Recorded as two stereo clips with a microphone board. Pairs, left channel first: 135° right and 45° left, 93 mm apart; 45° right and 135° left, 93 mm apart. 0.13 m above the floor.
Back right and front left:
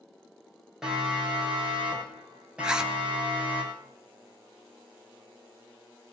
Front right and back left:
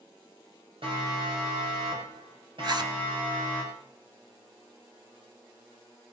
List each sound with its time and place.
0.8 s a siren: 130° left, 9 m; by 3.6 s 120° left, 11.5 m
2.6 s a zipper: 125° left, 1.2 m